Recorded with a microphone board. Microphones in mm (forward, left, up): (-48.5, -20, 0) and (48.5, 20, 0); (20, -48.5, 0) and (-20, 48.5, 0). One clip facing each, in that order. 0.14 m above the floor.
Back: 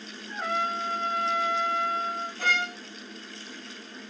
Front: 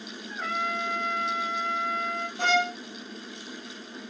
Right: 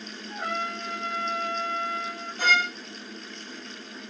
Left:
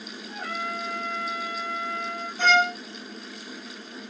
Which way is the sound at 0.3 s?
65° right.